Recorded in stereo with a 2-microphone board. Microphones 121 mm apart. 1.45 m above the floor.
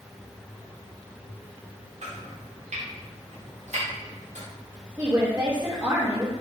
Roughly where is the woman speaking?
Right.